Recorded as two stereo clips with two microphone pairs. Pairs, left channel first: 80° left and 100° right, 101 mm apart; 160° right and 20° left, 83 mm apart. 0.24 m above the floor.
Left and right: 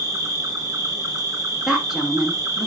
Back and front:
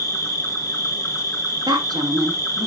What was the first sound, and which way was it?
An insect, 130° right.